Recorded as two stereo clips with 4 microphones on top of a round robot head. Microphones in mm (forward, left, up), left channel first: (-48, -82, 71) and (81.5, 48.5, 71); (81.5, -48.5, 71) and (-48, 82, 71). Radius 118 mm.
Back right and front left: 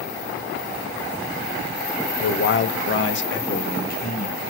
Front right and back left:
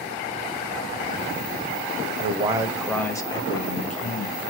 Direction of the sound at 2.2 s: 170° right.